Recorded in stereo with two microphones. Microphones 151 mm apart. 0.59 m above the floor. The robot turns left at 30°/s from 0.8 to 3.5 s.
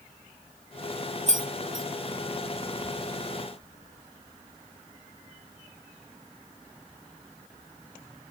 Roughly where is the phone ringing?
I don't hear a phone ringing.